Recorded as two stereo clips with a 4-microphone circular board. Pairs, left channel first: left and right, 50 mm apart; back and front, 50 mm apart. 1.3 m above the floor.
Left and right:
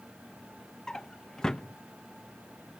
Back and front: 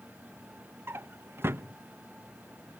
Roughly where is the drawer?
Ahead.